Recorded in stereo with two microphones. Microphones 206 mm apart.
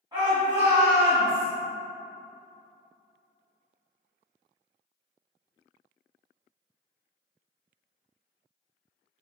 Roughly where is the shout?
Right.